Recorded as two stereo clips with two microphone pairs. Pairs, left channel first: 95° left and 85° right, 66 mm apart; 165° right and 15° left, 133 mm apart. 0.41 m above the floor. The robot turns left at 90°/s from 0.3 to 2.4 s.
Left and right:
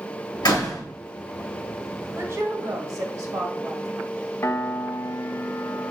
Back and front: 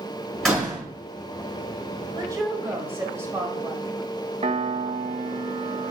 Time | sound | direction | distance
0.4 | a door slam | 110° left | 4 m
2.1 | a woman speaking | 30° right | 1.7 m
4.4 | a piano | 50° left | 0.5 m